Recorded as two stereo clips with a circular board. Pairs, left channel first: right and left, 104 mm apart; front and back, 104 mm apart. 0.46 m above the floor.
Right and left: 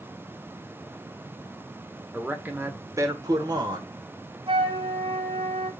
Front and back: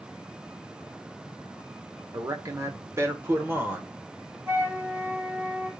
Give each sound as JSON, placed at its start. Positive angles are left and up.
{"t": 2.1, "sound": "a man speaking", "azimuth_deg": 165, "distance_m": 1.2}
{"t": 4.5, "sound": "a flute", "azimuth_deg": 110, "distance_m": 2.5}